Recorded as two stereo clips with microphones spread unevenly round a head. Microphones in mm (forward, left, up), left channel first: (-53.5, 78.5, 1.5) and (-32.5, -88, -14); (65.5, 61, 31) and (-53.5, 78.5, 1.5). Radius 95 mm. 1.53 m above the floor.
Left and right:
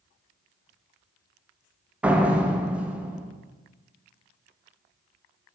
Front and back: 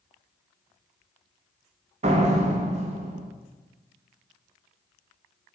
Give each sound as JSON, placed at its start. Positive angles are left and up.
{"t": 2.0, "sound": "a door slam", "azimuth_deg": -170, "distance_m": 0.6}